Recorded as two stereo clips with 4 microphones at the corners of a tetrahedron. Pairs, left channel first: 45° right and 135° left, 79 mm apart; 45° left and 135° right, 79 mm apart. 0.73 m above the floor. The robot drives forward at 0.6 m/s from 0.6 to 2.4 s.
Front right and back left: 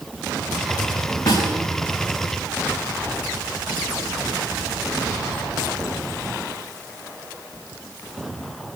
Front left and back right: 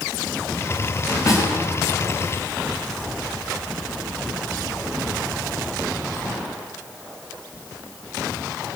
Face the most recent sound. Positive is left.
turn(degrees=-5)